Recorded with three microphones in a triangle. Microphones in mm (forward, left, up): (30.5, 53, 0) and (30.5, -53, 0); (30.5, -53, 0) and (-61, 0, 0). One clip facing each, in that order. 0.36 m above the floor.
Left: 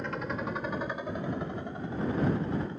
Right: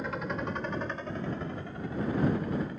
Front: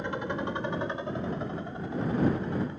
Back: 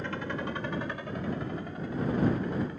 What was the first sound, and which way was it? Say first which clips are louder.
A helicopter: even, front 2 dB; 10° right.